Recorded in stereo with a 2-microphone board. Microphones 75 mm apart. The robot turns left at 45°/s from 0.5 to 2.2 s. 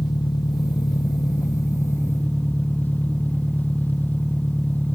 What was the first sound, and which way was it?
An engine running, 100° left.